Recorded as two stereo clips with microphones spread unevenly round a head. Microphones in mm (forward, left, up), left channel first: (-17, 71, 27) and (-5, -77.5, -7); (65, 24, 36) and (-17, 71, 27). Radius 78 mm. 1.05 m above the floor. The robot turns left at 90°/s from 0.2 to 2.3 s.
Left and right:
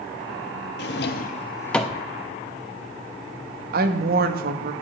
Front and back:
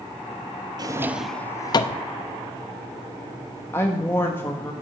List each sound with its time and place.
0.8 s a drawer: 100° left, 0.7 m; by 2.0 s 10° right, 0.7 m
3.7 s a woman speaking: 105° right, 1.2 m